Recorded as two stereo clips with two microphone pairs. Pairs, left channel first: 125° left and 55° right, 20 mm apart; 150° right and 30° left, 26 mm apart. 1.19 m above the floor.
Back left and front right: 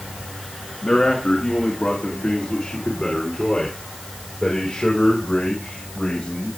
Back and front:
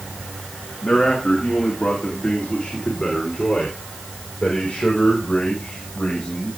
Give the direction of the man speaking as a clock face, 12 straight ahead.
7 o'clock.